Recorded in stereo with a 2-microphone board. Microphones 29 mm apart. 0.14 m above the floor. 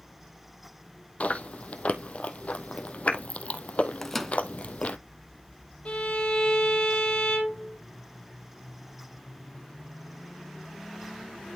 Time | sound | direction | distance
1.2 | chewing | 50° left (ahead or behind) | 0.9 m
4.0 | a microwave | 10° left (ahead or behind) | 1.0 m
5.8 | a violin | 45° left (ahead or behind) | 2.5 m